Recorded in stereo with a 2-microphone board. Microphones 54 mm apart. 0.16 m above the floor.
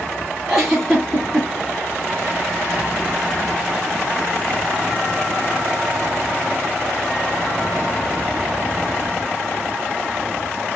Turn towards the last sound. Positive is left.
turn(degrees=-10)  # may be behind; listen again after turning